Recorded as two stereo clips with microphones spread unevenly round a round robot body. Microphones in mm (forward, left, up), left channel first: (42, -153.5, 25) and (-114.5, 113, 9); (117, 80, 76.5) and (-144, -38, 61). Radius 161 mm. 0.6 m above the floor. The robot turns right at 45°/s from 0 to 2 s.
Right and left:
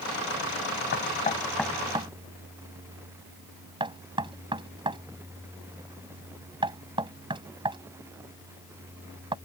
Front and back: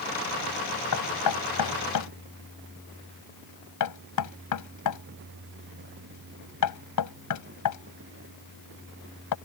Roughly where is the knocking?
Ahead.